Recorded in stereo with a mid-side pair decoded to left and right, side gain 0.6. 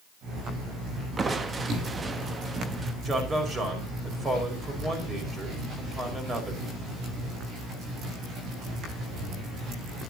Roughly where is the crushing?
Ahead right.